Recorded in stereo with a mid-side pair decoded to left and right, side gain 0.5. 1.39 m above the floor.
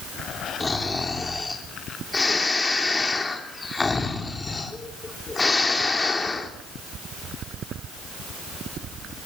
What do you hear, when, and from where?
0.6 s snoring: 20° left, 3 m